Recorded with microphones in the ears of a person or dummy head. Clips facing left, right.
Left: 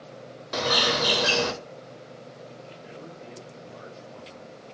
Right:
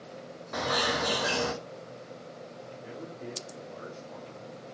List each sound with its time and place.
0.5 s a bird: 45° left (ahead or behind), 0.5 m
2.8 s a man speaking: 60° right (ahead or behind), 0.7 m